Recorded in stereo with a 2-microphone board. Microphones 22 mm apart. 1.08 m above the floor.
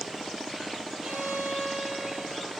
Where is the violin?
45° right (ahead or behind), 5.5 m.